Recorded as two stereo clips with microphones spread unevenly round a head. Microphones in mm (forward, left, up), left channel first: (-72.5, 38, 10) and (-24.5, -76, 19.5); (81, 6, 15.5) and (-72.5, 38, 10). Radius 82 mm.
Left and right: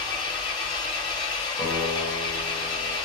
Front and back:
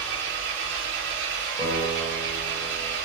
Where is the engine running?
170° left, 1.3 m.